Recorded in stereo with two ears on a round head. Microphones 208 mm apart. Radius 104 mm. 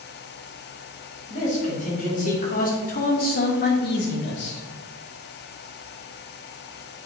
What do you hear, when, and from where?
1.3 s a man speaking: 30° left (ahead or behind), 2.5 m; by 4.6 s 50° left (ahead or behind), 1.3 m